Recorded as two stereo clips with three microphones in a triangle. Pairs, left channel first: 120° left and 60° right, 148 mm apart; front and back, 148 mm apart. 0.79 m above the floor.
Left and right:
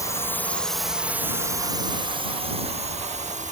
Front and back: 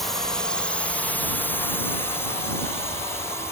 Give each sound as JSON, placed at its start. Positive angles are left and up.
{"t": 0.0, "sound": "a drone", "azimuth_deg": 85}